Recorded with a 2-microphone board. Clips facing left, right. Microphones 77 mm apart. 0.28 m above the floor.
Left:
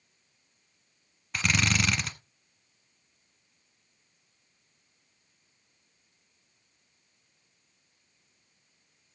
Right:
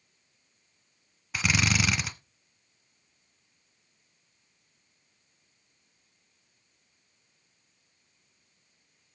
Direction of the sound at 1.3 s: 5° right (ahead or behind).